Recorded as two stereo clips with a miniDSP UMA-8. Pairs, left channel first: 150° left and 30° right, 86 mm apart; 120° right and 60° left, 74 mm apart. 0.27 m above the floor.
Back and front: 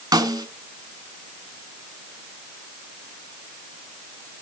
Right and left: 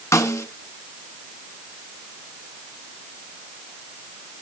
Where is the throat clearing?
No throat clearing in this recording.